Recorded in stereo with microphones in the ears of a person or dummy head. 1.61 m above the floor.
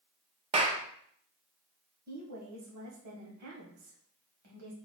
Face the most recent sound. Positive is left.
turn(degrees=-65)  # may be behind; listen again after turning